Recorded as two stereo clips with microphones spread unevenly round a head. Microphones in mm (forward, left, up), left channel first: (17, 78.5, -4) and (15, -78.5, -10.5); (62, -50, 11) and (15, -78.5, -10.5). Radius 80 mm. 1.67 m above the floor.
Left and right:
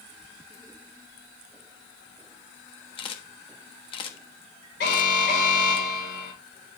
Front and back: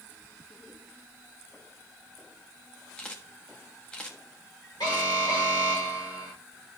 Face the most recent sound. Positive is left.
turn(degrees=80)